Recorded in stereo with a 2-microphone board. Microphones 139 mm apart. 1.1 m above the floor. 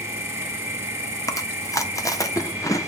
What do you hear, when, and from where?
0.0 s an insect: 20° right (ahead or behind), 1.6 m
1.3 s chewing: 25° left (ahead or behind), 0.9 m